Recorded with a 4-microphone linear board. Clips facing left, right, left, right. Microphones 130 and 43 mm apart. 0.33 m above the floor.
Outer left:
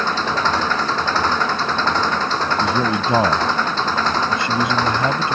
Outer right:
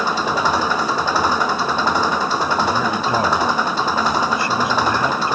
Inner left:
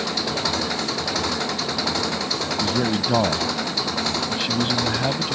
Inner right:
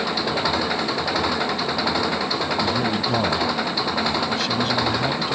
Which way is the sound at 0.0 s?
10° right (ahead or behind).